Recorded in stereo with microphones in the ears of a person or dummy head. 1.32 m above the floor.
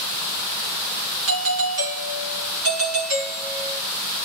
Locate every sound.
1.3 s a doorbell: 70° right (ahead or behind), 2.5 m